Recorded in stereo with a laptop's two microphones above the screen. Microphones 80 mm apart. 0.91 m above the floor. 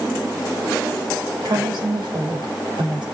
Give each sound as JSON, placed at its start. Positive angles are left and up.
{"t": 1.4, "sound": "a woman speaking", "side_deg": -75, "distance_m": 3.5}